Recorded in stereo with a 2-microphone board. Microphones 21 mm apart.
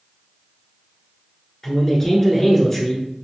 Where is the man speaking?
20° left (ahead or behind), 1.2 m.